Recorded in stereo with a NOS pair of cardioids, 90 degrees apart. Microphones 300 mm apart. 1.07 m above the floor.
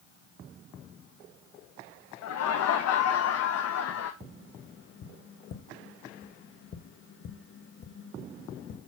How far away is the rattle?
I don't hear a rattle.